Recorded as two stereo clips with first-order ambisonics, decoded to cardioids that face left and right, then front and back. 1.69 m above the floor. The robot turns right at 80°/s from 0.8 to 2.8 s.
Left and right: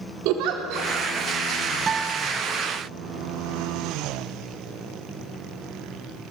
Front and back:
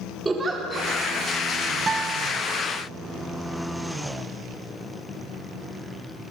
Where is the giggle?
100° right, 4 m; by 0.9 s 95° right, 4 m.